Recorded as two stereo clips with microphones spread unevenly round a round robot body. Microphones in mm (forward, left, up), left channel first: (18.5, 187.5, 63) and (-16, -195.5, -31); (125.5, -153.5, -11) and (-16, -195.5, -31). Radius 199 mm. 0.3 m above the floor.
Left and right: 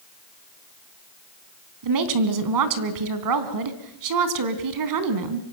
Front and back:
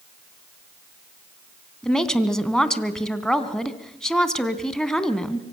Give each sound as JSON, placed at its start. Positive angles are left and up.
{"t": 1.8, "sound": "a woman speaking", "azimuth_deg": -70, "distance_m": 3.0}